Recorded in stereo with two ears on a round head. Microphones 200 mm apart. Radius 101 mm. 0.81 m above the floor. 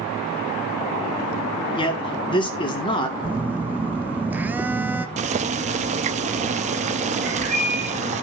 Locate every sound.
1.8 s a man speaking: 25° left (ahead or behind), 2 m
3.2 s a phone buzzing: 10° right (ahead or behind), 0.7 m
5.2 s boiling: 30° right (ahead or behind), 0.8 m
7.2 s a bird: 35° right (ahead or behind), 6 m